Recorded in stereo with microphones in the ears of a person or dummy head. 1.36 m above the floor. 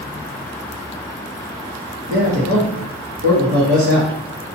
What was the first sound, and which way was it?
A man speaking, 60° right (ahead or behind).